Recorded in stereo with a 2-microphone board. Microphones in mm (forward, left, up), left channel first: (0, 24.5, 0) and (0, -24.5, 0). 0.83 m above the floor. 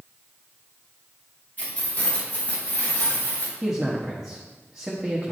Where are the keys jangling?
35° left (ahead or behind), 3 m; by 3.5 s 40° left (ahead or behind), 4 m.